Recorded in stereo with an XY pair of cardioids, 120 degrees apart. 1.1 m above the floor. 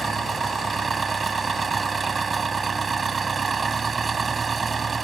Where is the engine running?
30° right.